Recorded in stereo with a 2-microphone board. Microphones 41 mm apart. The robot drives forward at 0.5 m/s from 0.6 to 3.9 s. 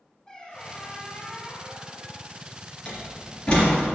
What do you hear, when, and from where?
0.3 s a squeak: 20° left (ahead or behind), 0.8 m; by 2.4 s 15° left (ahead or behind), 1.0 m
2.9 s a door slam: 25° left (ahead or behind), 2 m; by 3.8 s 20° left (ahead or behind), 2.5 m